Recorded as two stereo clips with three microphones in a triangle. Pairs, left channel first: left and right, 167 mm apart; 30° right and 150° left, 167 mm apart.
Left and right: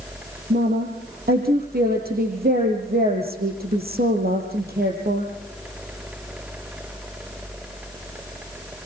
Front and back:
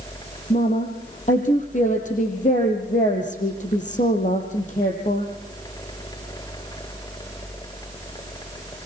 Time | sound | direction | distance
0.5 | a woman speaking | 70° right | 6 m